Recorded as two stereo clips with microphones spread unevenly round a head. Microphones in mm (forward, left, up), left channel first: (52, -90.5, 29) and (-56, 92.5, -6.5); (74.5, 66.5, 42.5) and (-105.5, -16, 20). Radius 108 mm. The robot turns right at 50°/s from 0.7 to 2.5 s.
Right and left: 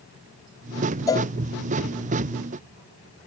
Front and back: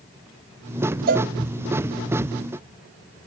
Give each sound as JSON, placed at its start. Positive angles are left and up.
{"t": 1.1, "sound": "a cowbell", "azimuth_deg": -115}